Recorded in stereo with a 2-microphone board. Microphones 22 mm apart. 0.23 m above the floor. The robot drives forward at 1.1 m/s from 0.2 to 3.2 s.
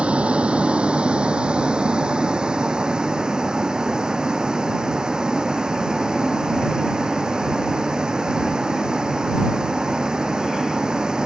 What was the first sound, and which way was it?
A vehicle, 55° right (ahead or behind).